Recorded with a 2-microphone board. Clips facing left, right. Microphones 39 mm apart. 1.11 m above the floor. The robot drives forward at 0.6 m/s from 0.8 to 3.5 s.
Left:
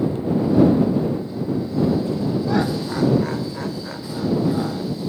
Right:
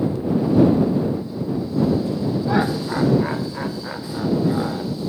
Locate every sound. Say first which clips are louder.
2.5 s laughter: right 1 dB; 15° right (ahead or behind)